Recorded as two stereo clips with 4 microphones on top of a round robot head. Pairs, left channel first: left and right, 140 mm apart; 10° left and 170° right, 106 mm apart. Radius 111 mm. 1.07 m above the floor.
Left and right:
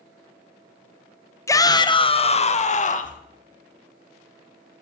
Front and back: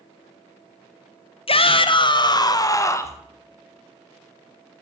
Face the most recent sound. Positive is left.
turn(degrees=70)